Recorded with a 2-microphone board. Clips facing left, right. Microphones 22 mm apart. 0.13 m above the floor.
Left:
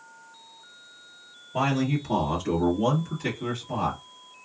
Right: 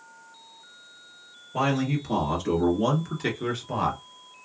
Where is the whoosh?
No whoosh in this recording.